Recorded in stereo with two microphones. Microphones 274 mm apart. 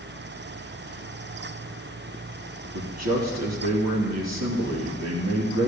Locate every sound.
2.7 s a man speaking: 70° right (ahead or behind), 3 m